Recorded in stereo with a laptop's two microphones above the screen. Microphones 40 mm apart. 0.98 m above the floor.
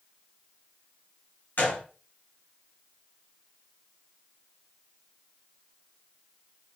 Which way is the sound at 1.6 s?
60° left (ahead or behind).